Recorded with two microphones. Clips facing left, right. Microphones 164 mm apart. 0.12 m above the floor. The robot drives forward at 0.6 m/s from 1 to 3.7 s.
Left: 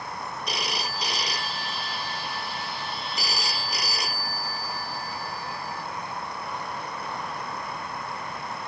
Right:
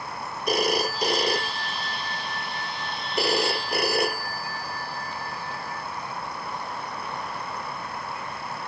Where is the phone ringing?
50° right (ahead or behind); by 5.8 s 55° right (ahead or behind).